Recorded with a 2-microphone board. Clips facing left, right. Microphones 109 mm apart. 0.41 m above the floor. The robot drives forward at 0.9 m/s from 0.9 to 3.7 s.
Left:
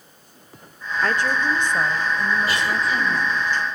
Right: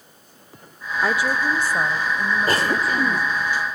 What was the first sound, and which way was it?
A woman speaking, 10° right (ahead or behind).